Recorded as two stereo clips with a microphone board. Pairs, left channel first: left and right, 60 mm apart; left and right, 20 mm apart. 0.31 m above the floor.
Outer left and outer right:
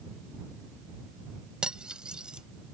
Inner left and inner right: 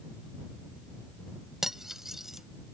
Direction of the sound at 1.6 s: 15° right (ahead or behind).